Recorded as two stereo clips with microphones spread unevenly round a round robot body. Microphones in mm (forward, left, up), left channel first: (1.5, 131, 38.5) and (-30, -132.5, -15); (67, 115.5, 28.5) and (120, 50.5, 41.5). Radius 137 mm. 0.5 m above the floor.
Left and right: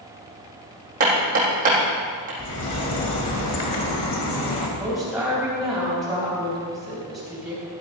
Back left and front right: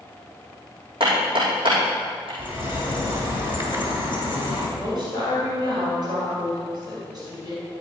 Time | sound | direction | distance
1.0 | hammering | 160° right | 5 m
2.4 | a bird | 130° left | 2.5 m
4.8 | a woman speaking | straight behind | 3.5 m